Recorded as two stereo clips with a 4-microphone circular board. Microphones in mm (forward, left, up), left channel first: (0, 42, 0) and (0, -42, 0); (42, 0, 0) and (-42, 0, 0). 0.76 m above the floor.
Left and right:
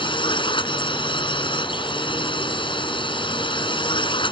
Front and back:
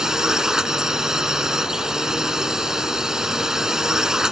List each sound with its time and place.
0.0 s a drone: 95° left